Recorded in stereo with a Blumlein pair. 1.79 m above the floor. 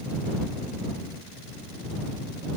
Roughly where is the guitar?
I don't hear a guitar.